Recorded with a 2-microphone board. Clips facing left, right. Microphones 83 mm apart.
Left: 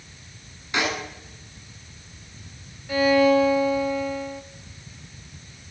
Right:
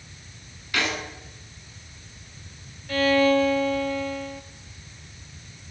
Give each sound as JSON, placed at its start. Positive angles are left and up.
{"t": 0.7, "sound": "a snare drum", "side_deg": 25, "distance_m": 8.5}
{"t": 2.9, "sound": "a violin", "side_deg": 15, "distance_m": 2.0}